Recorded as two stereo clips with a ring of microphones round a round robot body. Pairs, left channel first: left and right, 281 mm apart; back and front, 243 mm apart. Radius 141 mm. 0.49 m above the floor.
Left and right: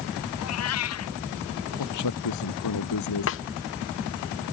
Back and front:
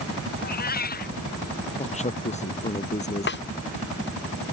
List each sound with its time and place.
0.4 s a cat meowing: 130° left
1.8 s a man speaking: 120° left
3.3 s a snare drum: 135° left